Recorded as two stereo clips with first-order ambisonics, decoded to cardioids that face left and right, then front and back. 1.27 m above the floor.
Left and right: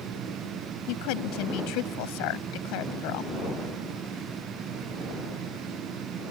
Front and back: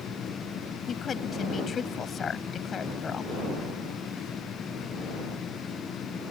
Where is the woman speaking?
70° left.